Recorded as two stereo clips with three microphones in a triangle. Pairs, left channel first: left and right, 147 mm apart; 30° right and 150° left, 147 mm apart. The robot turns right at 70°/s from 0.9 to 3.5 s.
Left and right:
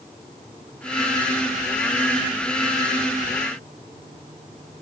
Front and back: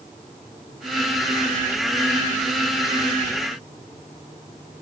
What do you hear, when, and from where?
Only background noise.